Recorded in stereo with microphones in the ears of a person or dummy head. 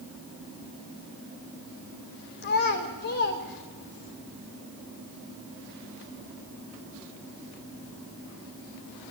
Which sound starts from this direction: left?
A child speaking, at 2.4 s.